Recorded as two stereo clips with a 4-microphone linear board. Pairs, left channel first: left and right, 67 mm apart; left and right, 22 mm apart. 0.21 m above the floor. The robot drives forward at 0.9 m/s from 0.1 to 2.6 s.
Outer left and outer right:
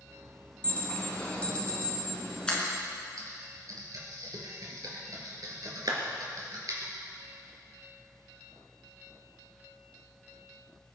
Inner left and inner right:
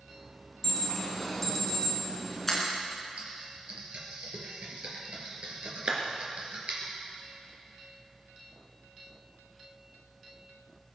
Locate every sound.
0.6 s an alarm: 20° left (ahead or behind), 3 m; by 2.6 s 10° left (ahead or behind), 4 m
3.2 s typing on a keyboard: 65° right (ahead or behind), 4 m
5.9 s a clap: 65° right (ahead or behind), 3 m